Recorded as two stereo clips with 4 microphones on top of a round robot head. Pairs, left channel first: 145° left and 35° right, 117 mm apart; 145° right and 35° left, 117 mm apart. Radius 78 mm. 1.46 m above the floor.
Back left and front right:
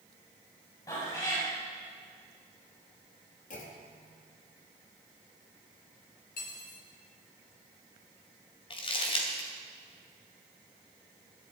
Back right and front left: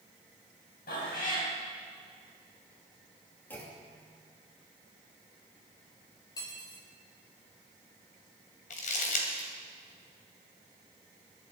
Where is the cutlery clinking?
155° left, 3.5 m.